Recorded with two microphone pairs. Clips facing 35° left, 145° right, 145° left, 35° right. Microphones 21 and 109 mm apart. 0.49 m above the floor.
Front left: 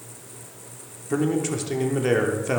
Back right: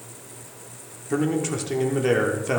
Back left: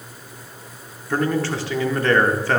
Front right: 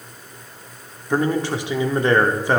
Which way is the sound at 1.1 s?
65° right.